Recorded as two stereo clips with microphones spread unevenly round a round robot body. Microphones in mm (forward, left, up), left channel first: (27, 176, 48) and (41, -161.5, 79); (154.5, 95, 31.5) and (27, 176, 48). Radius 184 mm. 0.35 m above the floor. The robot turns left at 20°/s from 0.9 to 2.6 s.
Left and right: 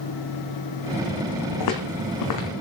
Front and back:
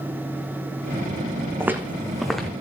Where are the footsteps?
70° left, 1.6 m; by 2.5 s 55° left, 1.6 m.